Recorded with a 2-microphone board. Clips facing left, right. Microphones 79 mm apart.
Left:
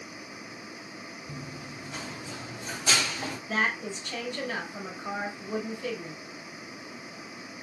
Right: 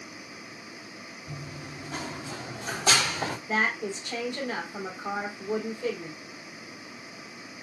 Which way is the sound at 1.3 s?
65° right (ahead or behind).